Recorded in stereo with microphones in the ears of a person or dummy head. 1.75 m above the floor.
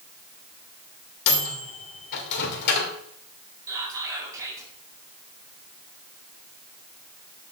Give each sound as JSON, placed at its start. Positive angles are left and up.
{"t": 1.3, "sound": "a microwave", "side_deg": 55, "distance_m": 1.7}
{"t": 3.7, "sound": "whispering", "side_deg": -20, "distance_m": 3.5}